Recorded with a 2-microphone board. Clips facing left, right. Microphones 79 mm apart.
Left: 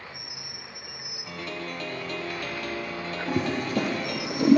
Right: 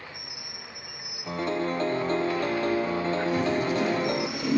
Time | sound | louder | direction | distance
1.3 | a piano | right 8 dB | 30° right (ahead or behind) | 0.5 m
3.3 | a toilet flushing | left 2 dB | 50° left (ahead or behind) | 4.5 m